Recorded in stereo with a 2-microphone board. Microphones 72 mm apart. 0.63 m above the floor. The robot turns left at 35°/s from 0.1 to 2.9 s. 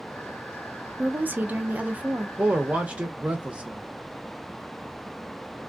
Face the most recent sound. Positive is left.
turn(degrees=-15)  # may be behind; listen again after turning